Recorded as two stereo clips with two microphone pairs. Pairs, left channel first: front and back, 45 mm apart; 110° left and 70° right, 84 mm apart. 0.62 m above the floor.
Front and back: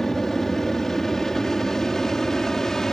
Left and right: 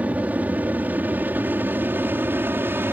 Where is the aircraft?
60° right; by 2.9 s 65° right.